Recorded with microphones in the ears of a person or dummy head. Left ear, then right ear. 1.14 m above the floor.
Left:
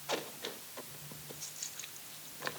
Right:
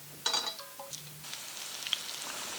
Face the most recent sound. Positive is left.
No sound to turn to.